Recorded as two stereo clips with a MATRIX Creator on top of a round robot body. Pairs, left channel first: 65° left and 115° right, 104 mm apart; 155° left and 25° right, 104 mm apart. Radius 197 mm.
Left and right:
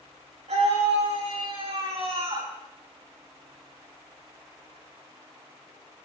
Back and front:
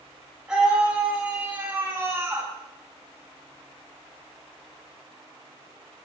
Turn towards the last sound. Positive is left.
turn(degrees=-85)